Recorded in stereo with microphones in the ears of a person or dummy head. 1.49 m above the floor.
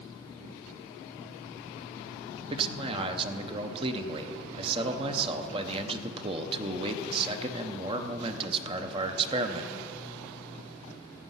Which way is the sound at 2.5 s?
30° right (ahead or behind).